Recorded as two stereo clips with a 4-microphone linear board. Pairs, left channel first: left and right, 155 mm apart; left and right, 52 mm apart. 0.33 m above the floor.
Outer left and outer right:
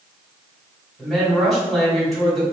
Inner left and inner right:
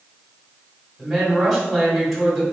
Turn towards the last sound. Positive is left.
turn(degrees=0)  # may be behind; listen again after turning